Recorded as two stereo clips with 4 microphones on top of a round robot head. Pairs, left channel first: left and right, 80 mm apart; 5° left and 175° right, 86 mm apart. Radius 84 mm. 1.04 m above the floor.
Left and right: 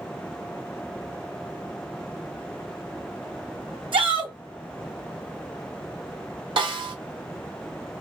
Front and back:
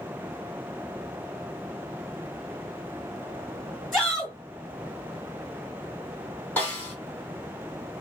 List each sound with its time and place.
3.9 s a shout: 85° right, 3 m
6.6 s a snare drum: 70° right, 1.5 m